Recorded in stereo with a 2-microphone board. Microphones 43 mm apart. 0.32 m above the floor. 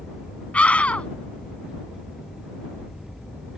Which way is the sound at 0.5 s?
30° left (ahead or behind).